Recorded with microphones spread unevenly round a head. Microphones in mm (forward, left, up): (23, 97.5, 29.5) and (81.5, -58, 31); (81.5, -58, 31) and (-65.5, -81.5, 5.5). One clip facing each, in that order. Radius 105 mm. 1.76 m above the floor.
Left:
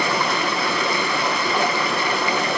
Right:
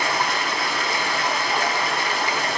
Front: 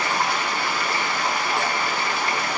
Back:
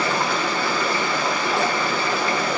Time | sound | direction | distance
0.0 | running water | 150° left | 1.4 m